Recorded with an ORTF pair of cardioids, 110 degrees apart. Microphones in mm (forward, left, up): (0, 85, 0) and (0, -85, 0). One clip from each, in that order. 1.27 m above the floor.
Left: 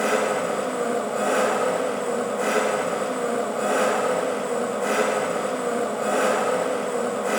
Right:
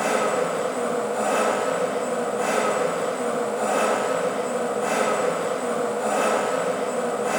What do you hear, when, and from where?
0.0 s an engine running: 25° left, 2.5 m